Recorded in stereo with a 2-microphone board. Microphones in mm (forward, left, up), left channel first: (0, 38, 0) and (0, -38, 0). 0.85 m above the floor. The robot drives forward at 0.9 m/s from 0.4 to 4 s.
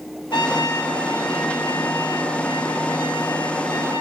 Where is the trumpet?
85° left, 9 m; by 4.0 s 75° left (ahead or behind), 9.5 m.